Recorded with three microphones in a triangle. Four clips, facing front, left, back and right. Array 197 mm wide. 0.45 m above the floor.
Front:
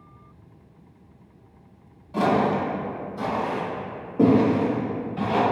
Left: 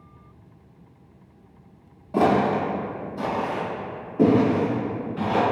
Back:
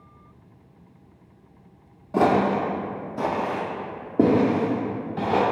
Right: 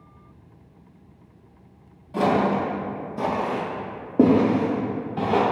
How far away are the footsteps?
About 0.6 m.